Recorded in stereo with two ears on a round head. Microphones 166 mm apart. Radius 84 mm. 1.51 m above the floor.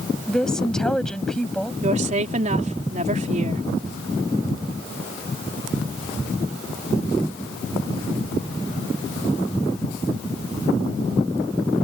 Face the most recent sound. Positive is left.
turn(degrees=-40)  # may be behind; listen again after turning